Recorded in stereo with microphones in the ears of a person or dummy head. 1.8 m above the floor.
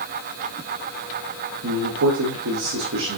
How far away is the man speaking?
About 1.2 m.